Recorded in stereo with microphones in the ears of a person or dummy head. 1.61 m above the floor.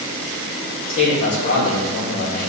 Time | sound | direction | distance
0.9 | a man speaking | 50° left (ahead or behind) | 1.9 m